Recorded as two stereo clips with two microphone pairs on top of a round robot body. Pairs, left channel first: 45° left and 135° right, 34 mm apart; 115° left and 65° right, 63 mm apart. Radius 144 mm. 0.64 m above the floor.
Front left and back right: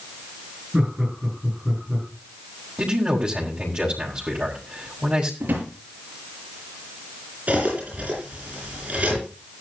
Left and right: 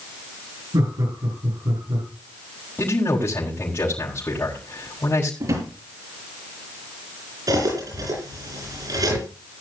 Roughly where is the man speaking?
Behind.